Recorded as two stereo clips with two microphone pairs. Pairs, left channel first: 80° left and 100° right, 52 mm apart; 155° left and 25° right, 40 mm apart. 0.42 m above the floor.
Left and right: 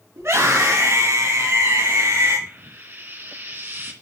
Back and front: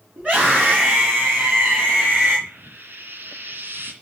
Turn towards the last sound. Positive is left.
turn(degrees=-55)